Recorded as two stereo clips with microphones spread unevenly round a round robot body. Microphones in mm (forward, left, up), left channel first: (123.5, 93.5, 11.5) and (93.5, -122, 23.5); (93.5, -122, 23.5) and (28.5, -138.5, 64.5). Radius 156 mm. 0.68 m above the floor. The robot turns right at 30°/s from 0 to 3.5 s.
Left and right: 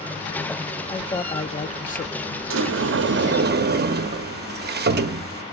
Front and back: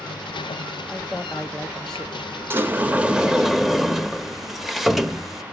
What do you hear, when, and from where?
0.9 s a man speaking: 20° left, 0.8 m; by 2.4 s 65° left, 0.8 m
2.5 s a sliding door: 90° right, 0.9 m; by 5.4 s 60° right, 0.9 m